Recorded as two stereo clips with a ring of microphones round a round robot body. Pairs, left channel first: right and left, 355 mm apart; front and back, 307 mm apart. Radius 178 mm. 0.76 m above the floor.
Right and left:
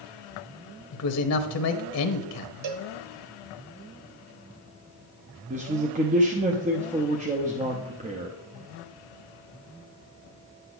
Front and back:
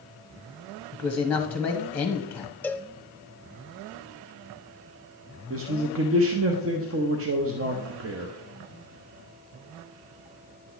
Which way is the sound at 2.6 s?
85° left.